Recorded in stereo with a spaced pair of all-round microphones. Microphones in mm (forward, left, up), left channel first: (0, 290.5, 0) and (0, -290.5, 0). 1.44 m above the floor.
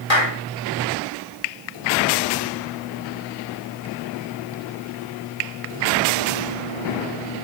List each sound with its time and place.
0.1 s a clap: 70° left (ahead or behind), 3.5 m